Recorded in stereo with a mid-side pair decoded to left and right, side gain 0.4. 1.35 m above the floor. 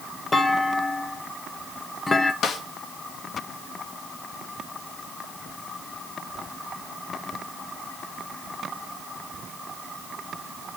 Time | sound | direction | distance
0.3 | a clunk | 25° left | 1.6 m
2.4 | a snare drum | 60° left | 1.7 m